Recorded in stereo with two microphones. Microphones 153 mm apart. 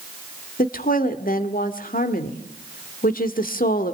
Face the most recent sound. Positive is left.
turn(degrees=65)  # may be behind; listen again after turning